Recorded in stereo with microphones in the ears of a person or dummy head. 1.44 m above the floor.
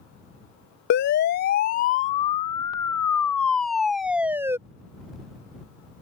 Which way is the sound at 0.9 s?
55° left (ahead or behind).